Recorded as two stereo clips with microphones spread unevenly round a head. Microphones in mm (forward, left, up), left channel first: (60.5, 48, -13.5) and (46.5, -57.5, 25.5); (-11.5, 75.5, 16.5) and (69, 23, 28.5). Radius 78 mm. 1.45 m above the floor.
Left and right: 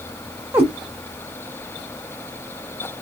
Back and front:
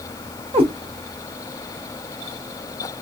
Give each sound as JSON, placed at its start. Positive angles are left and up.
{"t": 0.5, "sound": "a cat meowing", "azimuth_deg": -50, "distance_m": 1.7}